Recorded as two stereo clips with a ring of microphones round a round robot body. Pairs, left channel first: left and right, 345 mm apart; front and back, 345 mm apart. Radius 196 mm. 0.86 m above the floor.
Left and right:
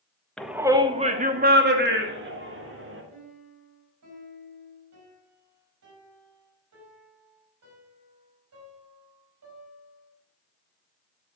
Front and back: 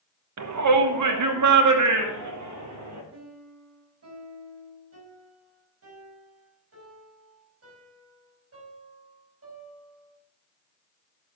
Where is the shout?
175° left, 1.3 m; by 3.0 s 140° right, 3.5 m.